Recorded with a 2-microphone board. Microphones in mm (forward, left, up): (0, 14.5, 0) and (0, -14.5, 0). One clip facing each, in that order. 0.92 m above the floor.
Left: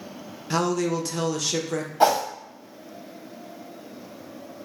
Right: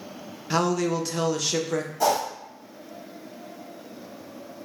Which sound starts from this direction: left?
A whoosh, at 2.0 s.